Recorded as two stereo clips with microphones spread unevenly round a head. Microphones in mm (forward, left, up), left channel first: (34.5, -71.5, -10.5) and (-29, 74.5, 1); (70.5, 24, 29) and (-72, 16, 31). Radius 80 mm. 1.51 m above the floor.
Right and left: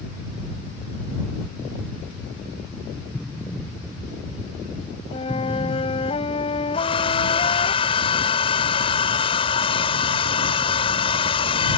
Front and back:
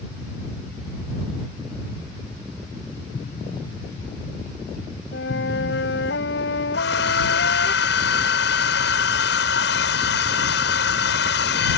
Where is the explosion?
15° left.